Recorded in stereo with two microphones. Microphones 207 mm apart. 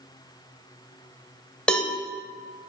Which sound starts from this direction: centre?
A cowbell, at 1.7 s.